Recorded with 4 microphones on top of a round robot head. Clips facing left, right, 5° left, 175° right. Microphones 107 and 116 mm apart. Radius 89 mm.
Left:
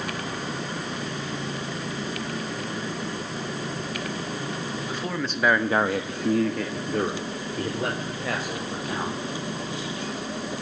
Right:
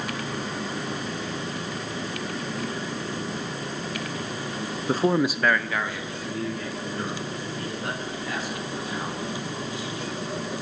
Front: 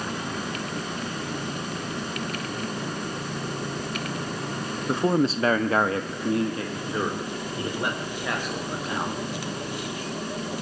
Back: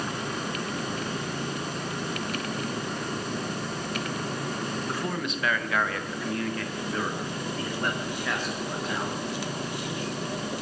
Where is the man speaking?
60° right, 1.1 m; by 9.2 s 80° left, 5.5 m.